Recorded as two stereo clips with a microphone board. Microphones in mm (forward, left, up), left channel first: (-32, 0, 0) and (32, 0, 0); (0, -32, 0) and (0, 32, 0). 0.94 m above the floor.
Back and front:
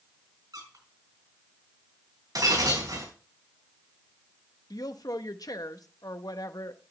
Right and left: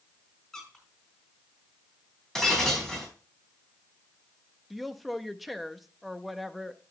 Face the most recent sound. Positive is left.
turn(degrees=180)